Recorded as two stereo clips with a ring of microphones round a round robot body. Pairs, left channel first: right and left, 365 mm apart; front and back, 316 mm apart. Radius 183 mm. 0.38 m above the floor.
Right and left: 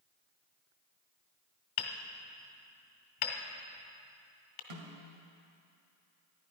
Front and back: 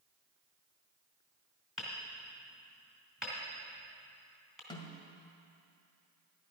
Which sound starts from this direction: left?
A snare drum, at 4.7 s.